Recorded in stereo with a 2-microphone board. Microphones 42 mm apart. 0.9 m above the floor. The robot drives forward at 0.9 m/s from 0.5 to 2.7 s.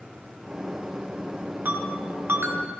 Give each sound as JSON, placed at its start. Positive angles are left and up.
{"t": 1.6, "sound": "a ringtone", "side_deg": -50, "distance_m": 2.5}